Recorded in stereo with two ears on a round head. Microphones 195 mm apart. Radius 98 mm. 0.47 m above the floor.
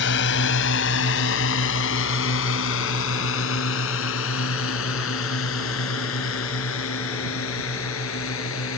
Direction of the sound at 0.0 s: 60° left (ahead or behind).